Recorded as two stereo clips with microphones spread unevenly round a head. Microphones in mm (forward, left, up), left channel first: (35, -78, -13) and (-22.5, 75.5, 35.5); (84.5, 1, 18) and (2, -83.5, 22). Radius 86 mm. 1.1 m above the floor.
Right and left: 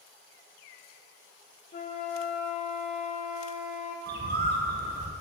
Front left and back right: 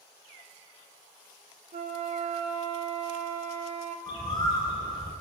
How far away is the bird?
About 0.9 m.